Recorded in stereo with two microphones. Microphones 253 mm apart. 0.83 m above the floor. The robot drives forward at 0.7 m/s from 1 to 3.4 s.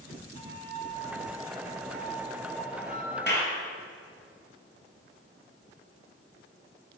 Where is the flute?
35° left (ahead or behind), 5.5 m; by 3.2 s 30° left (ahead or behind), 7 m.